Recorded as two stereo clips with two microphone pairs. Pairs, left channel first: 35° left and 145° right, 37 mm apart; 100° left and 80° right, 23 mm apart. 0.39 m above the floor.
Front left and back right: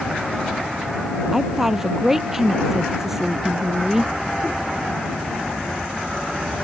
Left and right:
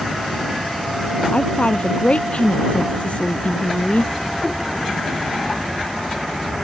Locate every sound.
1.3 s a woman speaking: 135° left